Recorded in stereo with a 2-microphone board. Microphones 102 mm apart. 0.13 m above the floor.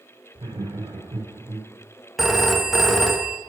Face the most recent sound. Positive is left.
turn(degrees=0)  # may be behind; listen again after turning